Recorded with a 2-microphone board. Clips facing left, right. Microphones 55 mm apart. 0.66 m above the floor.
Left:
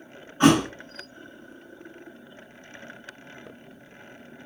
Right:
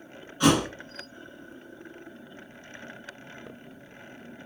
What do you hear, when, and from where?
0.4 s a thud: 35° left (ahead or behind), 0.6 m